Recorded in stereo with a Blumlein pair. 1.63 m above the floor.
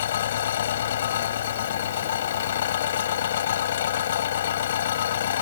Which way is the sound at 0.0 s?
60° left.